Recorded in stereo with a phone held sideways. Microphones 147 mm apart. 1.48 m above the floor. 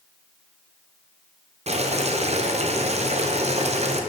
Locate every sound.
1.7 s boiling: 45° right (ahead or behind), 0.9 m